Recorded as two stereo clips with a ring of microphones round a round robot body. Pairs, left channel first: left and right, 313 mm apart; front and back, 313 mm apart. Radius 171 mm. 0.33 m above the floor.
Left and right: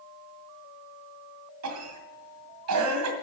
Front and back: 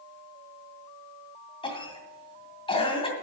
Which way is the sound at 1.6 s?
70° right.